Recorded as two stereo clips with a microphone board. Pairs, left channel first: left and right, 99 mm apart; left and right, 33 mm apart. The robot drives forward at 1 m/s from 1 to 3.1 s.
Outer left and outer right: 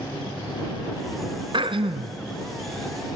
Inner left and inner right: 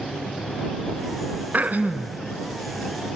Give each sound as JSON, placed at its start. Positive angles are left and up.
{"t": 1.5, "sound": "throat clearing", "side_deg": -60, "distance_m": 1.1}